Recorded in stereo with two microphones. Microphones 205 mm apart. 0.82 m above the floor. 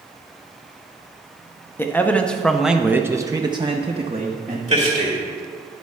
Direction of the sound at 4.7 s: 35° right (ahead or behind).